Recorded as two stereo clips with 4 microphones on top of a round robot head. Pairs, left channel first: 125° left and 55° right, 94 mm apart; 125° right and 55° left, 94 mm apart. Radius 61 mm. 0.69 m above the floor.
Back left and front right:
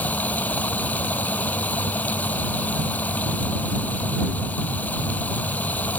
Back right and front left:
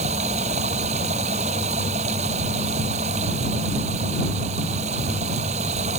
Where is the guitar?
No guitar in this recording.